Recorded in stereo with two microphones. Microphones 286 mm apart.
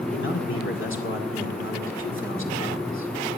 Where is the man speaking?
45° left (ahead or behind), 2 m.